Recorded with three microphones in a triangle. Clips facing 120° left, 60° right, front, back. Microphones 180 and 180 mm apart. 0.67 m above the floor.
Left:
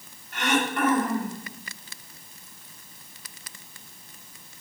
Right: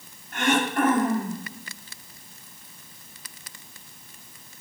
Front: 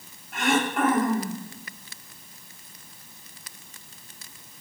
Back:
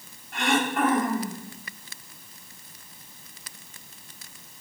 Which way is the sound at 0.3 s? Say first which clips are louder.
Right 2 dB, front 1 dB; 90° right.